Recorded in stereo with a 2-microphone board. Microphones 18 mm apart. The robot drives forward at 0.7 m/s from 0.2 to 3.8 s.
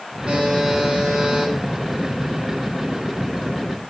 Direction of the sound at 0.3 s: 80° right.